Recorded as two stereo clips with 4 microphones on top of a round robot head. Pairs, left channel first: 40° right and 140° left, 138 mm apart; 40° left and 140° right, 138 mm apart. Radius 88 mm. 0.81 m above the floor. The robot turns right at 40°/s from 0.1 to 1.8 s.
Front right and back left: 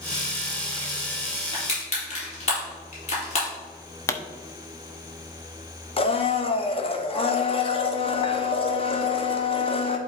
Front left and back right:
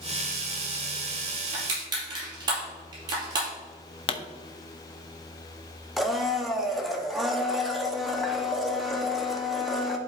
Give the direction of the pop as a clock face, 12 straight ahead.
11 o'clock.